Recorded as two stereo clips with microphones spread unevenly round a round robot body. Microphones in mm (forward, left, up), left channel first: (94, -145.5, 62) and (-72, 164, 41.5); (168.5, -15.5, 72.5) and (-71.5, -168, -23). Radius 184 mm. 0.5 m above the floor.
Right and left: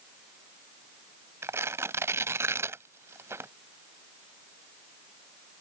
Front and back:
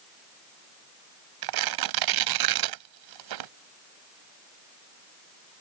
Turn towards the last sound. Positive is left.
turn(degrees=-160)